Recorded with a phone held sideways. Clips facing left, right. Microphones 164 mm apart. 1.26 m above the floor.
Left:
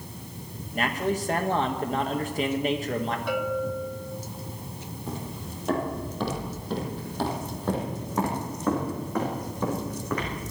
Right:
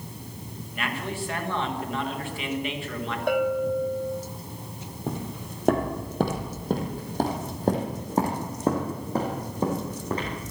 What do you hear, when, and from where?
0.7 s a man speaking: 40° left (ahead or behind), 1.6 m
3.3 s a bell: 50° right (ahead or behind), 1.5 m
5.1 s footsteps: 60° right (ahead or behind), 2.5 m; by 10.4 s 25° right (ahead or behind), 5 m